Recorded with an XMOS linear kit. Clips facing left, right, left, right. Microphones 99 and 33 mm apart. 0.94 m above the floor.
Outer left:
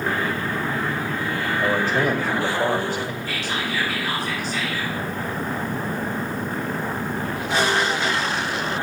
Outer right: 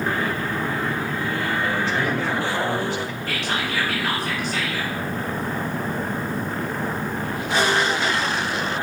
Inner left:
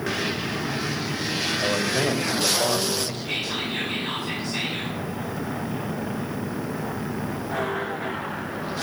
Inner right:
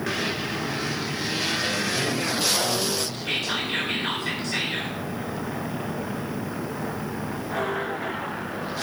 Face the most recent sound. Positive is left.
turn(degrees=-55)  # may be behind; listen again after turning